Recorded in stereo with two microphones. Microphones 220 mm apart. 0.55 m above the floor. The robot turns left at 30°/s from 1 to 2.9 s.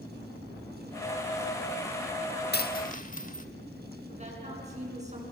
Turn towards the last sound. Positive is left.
turn(degrees=-30)  # may be behind; listen again after turning